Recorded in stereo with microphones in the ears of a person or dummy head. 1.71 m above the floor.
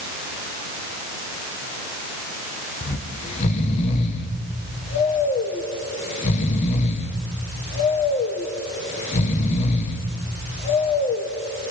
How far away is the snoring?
About 1.7 m.